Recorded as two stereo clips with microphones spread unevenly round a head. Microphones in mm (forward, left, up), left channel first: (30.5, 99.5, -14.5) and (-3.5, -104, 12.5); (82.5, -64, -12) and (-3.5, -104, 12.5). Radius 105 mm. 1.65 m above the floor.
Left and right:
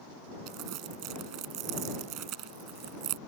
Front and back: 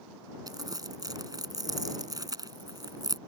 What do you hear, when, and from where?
0.5 s crumpling: 110° right